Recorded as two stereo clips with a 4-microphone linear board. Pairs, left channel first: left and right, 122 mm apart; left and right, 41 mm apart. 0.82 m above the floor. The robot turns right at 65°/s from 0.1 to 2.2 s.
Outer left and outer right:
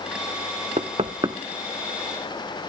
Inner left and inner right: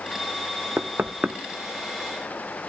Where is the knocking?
70° right (ahead or behind), 1.1 m; by 1.4 s 30° right (ahead or behind), 1.1 m.